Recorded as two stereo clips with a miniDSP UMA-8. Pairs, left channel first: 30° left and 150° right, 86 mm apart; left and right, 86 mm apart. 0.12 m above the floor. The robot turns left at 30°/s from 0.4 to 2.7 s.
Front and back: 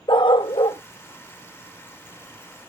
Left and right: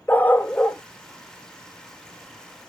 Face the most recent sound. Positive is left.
turn(degrees=-50)